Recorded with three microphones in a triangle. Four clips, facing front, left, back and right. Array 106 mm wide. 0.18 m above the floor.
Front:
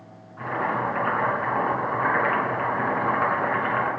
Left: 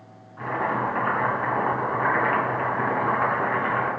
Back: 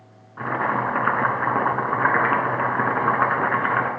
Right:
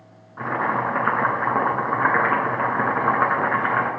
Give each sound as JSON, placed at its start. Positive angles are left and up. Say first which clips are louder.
{"t": 0.4, "sound": "boiling", "louder": "right 2 dB, back 3 dB", "azimuth_deg": -135, "distance_m": 1.8}